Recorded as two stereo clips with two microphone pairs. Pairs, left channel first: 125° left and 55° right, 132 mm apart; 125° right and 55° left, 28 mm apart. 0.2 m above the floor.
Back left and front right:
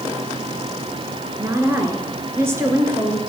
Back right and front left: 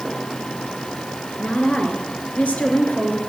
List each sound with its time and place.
1.4 s a woman speaking: 125° right, 2.5 m